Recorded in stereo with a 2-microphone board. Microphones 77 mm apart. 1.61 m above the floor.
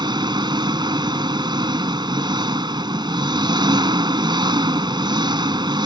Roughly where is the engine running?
Right.